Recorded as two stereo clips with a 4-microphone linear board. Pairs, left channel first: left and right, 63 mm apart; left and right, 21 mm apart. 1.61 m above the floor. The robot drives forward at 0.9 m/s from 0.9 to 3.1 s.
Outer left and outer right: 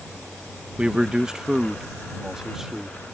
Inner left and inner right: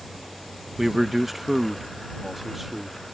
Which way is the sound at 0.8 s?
15° right (ahead or behind).